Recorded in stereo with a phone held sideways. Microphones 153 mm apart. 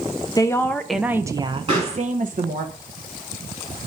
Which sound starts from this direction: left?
A woman speaking, at 0.4 s.